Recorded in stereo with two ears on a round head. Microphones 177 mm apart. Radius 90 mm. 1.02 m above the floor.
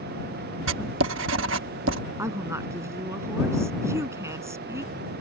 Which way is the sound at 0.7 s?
60° right (ahead or behind).